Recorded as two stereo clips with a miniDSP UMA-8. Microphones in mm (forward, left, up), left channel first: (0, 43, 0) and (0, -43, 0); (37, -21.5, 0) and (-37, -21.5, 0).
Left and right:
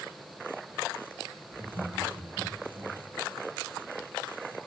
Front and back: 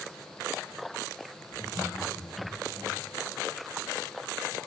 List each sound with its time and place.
1.5 s laughter: 40° right, 8.5 m; by 3.0 s 30° right, 7.5 m